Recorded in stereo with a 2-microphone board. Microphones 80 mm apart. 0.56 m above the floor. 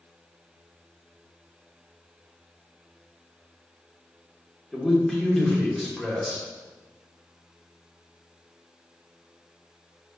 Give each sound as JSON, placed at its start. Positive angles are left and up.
{"t": 4.7, "sound": "a man speaking", "side_deg": 5, "distance_m": 1.2}